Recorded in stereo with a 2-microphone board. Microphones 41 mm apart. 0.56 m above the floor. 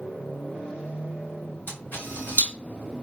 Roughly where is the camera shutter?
Left.